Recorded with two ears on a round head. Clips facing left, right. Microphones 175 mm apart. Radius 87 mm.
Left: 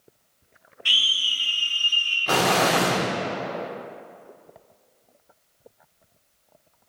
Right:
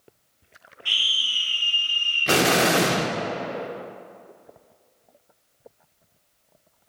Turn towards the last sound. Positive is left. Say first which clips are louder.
# right 1 dB
turn(degrees=-30)  # may be behind; listen again after turning